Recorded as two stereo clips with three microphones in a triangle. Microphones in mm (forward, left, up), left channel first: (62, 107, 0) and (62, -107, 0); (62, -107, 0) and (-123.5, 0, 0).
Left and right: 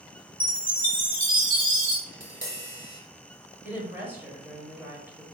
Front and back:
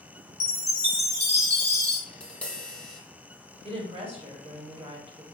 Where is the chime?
50° right, 1.0 m.